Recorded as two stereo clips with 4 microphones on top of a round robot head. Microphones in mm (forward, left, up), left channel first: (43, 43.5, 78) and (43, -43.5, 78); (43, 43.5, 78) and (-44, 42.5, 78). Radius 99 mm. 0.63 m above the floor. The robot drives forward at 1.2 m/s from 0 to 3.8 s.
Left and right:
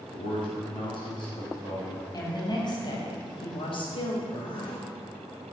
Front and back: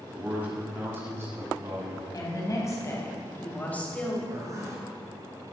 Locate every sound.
0.1 s a man speaking: 105° left, 4.5 m; by 2.0 s 130° left, 5.5 m
2.1 s a woman speaking: 45° left, 4 m; by 4.2 s 75° left, 3 m
4.3 s a zipper: 130° left, 3 m